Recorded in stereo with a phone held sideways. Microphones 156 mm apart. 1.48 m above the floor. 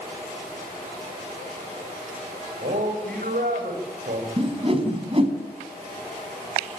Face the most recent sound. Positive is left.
turn(degrees=-35)  # may be behind; listen again after turning